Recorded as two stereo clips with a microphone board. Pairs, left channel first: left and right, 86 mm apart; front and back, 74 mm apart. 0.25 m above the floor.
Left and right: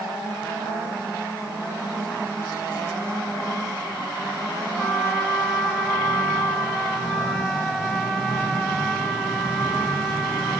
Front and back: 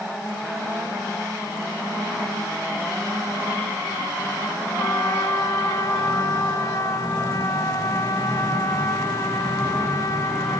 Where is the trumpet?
Straight ahead, 1.3 m.